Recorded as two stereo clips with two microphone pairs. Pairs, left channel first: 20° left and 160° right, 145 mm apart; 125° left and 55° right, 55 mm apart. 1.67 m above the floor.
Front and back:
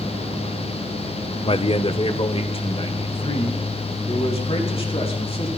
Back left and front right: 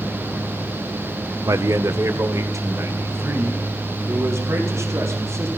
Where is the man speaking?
30° right, 0.6 m.